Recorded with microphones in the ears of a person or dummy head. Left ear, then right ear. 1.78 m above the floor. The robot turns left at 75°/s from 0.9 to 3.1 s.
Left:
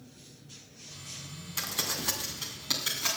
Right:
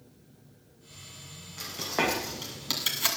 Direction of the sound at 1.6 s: 50° left (ahead or behind).